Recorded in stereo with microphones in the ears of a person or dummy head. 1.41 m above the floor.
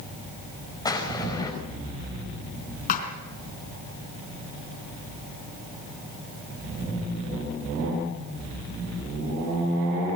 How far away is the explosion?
About 5 m.